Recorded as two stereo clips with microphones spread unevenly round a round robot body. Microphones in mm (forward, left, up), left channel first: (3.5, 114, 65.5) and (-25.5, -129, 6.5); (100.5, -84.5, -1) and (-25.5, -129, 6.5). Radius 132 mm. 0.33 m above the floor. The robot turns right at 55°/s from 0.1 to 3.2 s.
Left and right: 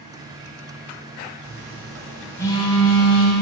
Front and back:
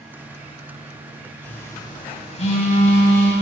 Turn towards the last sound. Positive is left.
turn(degrees=40)